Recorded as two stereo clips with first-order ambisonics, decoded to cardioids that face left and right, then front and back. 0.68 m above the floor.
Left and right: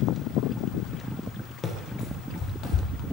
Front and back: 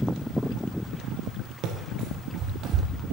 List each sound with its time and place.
1.6 s running footsteps: 155° left, 1.1 m; by 2.9 s 130° left, 1.7 m